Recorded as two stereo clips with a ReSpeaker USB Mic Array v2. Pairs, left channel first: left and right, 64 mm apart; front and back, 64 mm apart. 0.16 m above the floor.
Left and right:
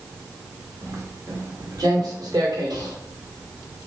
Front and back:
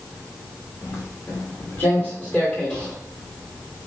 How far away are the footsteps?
About 2.5 m.